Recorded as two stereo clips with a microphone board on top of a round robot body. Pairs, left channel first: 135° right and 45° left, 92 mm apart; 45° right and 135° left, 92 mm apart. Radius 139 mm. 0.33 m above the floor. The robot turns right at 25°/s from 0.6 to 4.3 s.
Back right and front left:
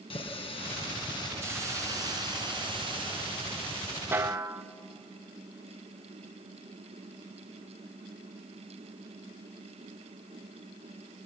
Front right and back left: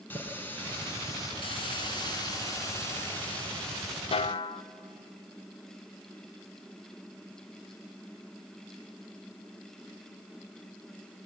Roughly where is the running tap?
Behind right.